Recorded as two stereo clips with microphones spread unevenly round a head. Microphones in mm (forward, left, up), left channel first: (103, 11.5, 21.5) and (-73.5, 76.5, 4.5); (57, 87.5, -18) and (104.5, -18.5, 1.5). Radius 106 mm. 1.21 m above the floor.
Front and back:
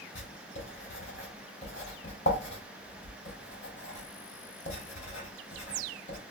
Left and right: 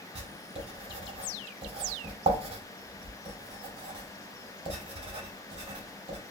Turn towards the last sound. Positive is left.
turn(degrees=-70)